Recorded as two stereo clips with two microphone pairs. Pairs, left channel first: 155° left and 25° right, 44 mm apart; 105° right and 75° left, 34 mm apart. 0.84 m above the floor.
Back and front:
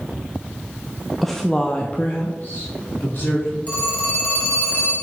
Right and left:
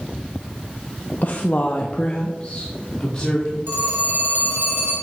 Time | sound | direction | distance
1.2 | a woman speaking | 115° right | 0.6 m
3.7 | a phone ringing | 100° left | 3.5 m